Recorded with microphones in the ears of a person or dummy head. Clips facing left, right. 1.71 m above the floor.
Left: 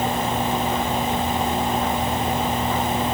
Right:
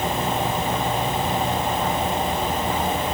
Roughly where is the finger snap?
No finger snap in this recording.